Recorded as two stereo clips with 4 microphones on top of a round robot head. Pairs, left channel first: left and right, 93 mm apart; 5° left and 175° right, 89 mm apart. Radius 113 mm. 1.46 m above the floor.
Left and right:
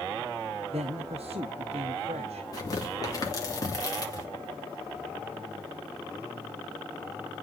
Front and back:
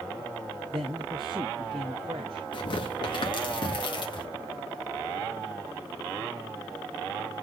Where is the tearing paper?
40° left, 3 m.